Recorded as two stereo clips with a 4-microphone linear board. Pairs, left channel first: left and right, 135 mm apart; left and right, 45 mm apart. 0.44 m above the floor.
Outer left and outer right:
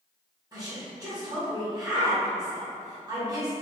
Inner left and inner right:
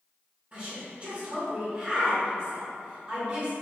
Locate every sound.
0.5 s a woman speaking: 30° right (ahead or behind), 1.2 m